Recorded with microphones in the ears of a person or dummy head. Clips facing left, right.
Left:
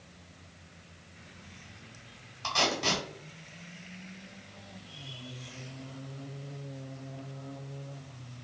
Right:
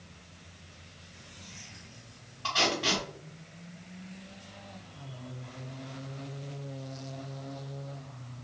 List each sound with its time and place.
2.4 s tape being pulled: 35° left (ahead or behind), 1.8 m